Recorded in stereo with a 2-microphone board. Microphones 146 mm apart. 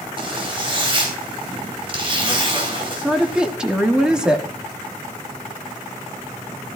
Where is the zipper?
35° right (ahead or behind), 4 m.